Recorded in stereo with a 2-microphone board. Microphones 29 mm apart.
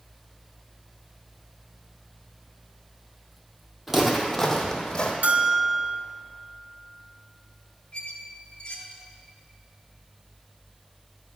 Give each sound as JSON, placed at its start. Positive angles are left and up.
{"t": 3.9, "sound": "footsteps", "side_deg": -5, "distance_m": 1.0}
{"t": 5.2, "sound": "a bell", "side_deg": -65, "distance_m": 0.6}
{"t": 7.9, "sound": "a squeak", "side_deg": 35, "distance_m": 0.9}